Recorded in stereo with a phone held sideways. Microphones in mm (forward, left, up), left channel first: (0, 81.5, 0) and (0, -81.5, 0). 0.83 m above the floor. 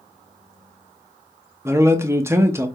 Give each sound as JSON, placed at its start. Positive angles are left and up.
{"t": 1.6, "sound": "a man speaking", "side_deg": -15, "distance_m": 0.6}